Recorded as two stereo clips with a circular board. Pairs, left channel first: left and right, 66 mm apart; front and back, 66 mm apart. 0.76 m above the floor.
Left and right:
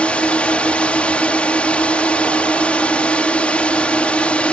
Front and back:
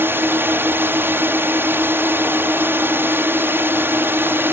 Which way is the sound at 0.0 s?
155° left.